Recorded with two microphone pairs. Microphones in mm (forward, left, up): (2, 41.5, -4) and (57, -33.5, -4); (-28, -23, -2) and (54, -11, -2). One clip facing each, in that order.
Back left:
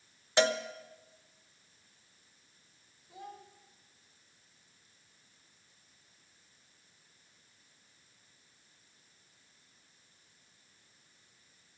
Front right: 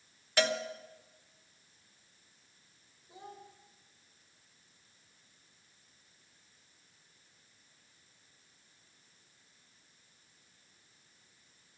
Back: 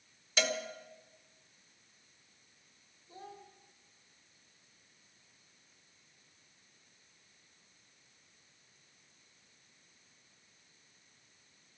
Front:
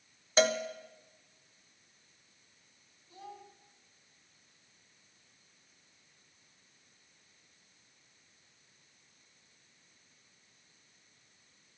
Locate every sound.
0.4 s a cowbell: 60° left, 1.0 m
3.1 s a child speaking: 120° right, 4 m